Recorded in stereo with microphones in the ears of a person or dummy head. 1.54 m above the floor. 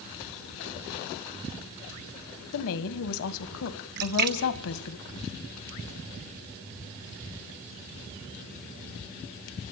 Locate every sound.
2.5 s a woman speaking: 80° left, 1.6 m
4.0 s a splash: 55° right (ahead or behind), 1.2 m